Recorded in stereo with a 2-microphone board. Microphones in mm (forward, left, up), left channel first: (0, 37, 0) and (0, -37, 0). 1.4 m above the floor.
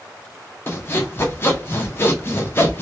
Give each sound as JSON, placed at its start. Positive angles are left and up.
{"t": 0.7, "sound": "sawing", "side_deg": 30, "distance_m": 0.6}